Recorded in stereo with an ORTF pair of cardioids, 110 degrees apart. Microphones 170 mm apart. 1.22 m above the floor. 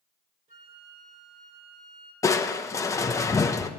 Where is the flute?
50° right, 5 m.